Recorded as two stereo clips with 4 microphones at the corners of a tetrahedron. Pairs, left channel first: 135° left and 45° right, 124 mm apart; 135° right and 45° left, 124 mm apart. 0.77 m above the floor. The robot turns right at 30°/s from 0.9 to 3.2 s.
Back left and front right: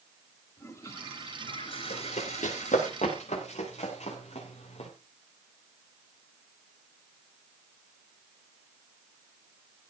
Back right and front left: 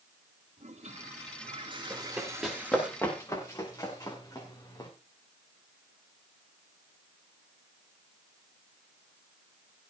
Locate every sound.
0.6 s a toilet flushing: 70° left, 2.5 m; by 2.9 s 130° left, 2.5 m
1.9 s running footsteps: 120° left, 8 m; by 4.9 s 170° left, 7 m